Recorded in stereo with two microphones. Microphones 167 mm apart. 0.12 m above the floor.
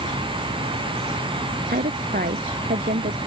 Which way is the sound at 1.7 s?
60° right (ahead or behind).